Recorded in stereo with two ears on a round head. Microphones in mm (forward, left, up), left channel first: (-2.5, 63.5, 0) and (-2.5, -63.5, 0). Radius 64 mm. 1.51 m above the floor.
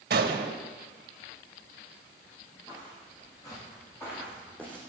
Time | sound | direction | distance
0.1 | a gunshot | 70° right (ahead or behind) | 1.6 m
2.7 | footsteps | 30° left (ahead or behind) | 8 m